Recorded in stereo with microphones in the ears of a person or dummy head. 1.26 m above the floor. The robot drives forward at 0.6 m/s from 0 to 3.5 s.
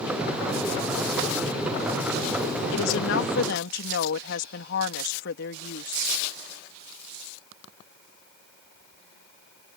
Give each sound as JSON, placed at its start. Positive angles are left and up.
{"t": 2.7, "sound": "a woman speaking", "side_deg": 70}